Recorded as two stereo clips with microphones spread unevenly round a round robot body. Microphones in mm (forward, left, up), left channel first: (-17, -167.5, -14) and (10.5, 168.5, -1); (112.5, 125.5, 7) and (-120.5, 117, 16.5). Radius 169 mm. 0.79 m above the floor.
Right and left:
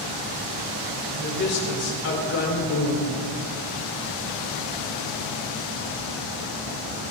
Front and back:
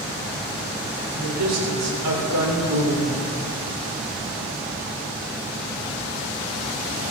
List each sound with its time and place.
1.1 s a woman speaking: 155° right, 3 m; by 3.2 s 135° right, 2.5 m